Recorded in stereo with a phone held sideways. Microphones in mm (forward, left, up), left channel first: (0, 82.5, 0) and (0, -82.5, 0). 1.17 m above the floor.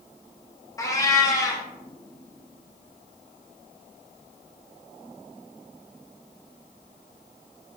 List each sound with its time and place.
0.8 s a cat meowing: 20° left (ahead or behind), 0.5 m